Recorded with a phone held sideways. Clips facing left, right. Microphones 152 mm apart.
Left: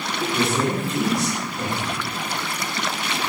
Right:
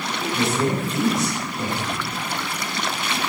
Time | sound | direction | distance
0.2 | a woman speaking | 55° left (ahead or behind) | 2.0 m